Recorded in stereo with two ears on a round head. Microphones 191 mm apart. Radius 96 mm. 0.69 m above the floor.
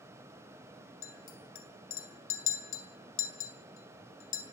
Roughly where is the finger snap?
No finger snap in this recording.